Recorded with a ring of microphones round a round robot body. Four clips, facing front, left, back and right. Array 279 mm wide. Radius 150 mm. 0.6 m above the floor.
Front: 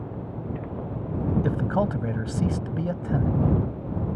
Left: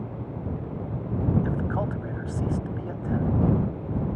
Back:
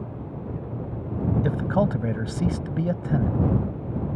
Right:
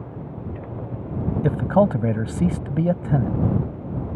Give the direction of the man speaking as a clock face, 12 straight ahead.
3 o'clock.